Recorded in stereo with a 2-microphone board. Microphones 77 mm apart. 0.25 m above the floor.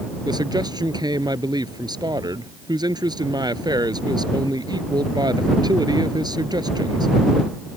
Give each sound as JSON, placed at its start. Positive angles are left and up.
{"t": 0.2, "sound": "a man speaking", "side_deg": -65}